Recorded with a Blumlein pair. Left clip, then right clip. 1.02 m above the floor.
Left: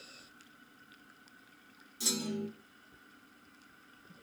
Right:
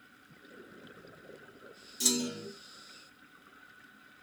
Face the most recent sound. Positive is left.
turn(degrees=-45)